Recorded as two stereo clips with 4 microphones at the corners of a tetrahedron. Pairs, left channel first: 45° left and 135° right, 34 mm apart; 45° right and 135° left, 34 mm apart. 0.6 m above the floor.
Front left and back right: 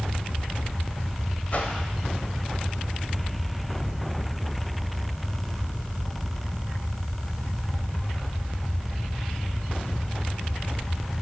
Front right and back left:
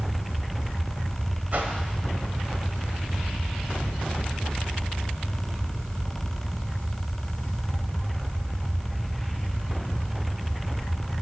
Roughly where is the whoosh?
Left.